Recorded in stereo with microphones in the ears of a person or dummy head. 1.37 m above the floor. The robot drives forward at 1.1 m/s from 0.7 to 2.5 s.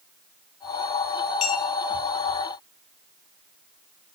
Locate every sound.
1.4 s a clink: 40° left (ahead or behind), 0.8 m; by 1.6 s 30° left (ahead or behind), 1.0 m